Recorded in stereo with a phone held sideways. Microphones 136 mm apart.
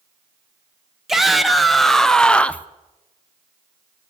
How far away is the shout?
About 1.3 m.